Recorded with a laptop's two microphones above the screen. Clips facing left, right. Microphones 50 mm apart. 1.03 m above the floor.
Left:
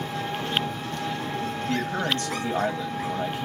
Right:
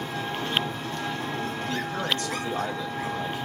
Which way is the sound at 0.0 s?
25° right (ahead or behind).